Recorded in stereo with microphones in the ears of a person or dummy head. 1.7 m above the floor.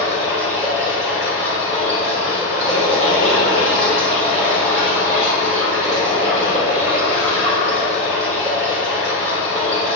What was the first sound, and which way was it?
Running water, 35° right (ahead or behind).